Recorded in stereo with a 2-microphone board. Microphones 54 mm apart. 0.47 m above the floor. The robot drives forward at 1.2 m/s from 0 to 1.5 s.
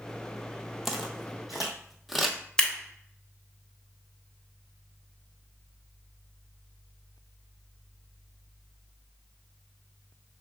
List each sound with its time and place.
0.8 s footsteps: 5° right (ahead or behind), 0.6 m
2.6 s scissors: 15° left (ahead or behind), 1.0 m